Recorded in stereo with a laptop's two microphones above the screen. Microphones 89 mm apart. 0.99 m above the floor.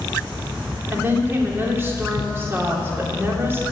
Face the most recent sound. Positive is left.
turn(degrees=-25)  # may be behind; listen again after turning